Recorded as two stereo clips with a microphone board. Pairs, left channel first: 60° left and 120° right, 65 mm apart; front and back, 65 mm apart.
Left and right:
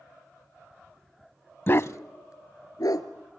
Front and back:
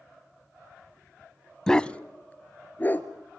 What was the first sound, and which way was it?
A dog barking, 75° left.